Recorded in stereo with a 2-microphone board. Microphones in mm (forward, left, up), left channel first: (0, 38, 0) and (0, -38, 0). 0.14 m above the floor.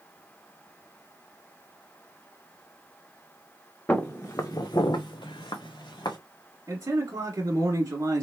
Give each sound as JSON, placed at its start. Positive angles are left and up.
{"t": 3.9, "sound": "footsteps", "side_deg": 20, "distance_m": 0.8}
{"t": 6.7, "sound": "a man speaking", "side_deg": -40, "distance_m": 1.4}